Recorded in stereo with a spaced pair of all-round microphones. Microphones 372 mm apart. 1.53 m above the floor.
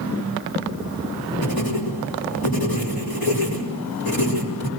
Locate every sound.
1.4 s writing: 70° left (ahead or behind), 4.5 m